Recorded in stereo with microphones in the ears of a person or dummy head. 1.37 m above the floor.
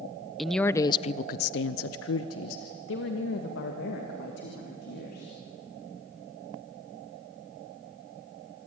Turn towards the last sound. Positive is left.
turn(degrees=50)  # may be behind; listen again after turning